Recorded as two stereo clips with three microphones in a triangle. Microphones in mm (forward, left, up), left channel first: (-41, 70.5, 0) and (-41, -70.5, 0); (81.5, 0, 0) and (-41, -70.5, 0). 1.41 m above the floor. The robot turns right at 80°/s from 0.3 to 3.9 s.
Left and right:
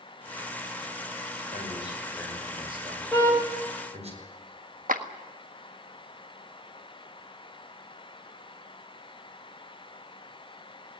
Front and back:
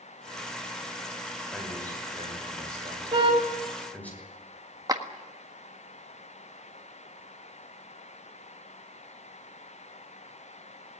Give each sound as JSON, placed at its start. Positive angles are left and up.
{"t": 1.5, "sound": "a man speaking", "azimuth_deg": 120, "distance_m": 6.0}
{"t": 3.1, "sound": "a car horn", "azimuth_deg": 165, "distance_m": 4.5}
{"t": 4.9, "sound": "a clap", "azimuth_deg": -85, "distance_m": 1.6}